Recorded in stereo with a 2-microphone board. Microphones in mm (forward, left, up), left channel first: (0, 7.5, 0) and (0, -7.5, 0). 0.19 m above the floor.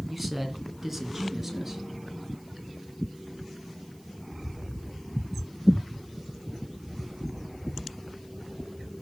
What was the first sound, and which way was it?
A man speaking, 5° left (ahead or behind).